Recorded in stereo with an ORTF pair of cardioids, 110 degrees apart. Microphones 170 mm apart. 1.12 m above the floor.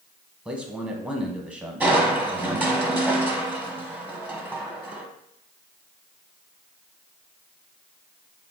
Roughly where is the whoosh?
No whoosh in this recording.